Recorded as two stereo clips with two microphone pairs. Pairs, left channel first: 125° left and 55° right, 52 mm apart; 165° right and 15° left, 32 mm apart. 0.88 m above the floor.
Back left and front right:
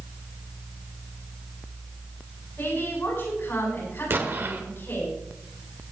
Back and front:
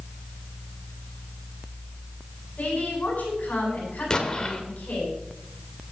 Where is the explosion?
95° right, 1.6 m.